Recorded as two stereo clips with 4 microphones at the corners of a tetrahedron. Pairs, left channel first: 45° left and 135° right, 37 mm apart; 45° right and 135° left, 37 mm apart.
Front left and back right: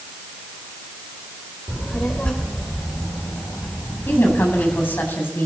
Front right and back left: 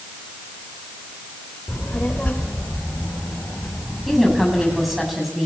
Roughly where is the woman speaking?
Ahead left.